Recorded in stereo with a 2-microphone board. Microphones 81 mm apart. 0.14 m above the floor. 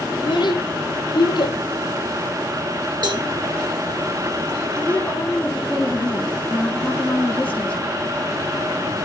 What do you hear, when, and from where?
0.1 s a child speaking: 70° left (ahead or behind), 3.5 m
3.0 s a cowbell: 65° right (ahead or behind), 2.5 m
4.8 s a woman speaking: 15° left (ahead or behind), 1.6 m